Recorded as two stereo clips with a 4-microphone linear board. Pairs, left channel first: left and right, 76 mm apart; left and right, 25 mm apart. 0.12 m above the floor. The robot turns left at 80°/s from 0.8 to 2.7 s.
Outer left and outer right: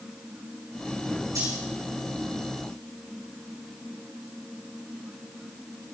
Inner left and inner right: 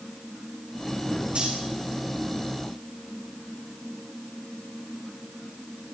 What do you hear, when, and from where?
1.4 s cutlery clinking: 60° right (ahead or behind), 5 m; by 1.5 s 75° right (ahead or behind), 5 m